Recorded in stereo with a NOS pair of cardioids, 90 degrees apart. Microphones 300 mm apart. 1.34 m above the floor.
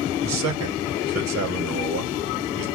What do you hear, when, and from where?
0.2 s a man speaking: 65° right, 3 m